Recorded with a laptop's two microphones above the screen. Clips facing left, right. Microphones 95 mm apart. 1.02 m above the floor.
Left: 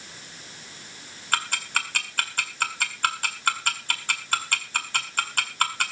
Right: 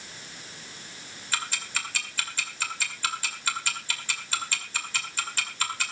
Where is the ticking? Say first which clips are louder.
Left 6 dB; 60° left (ahead or behind), 1.9 m.